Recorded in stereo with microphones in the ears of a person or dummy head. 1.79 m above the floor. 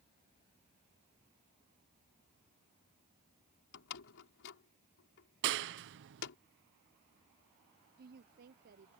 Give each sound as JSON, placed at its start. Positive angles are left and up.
{"t": 3.7, "sound": "a door slam", "side_deg": 65}
{"t": 5.4, "sound": "a clap", "side_deg": -65}
{"t": 8.0, "sound": "a woman speaking", "side_deg": -55}